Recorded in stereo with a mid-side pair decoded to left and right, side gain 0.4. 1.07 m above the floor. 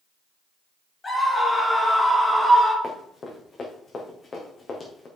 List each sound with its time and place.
1.0 s a scream: 35° left, 3 m; by 2.7 s 5° right, 3 m
2.8 s running footsteps: 45° left, 4.5 m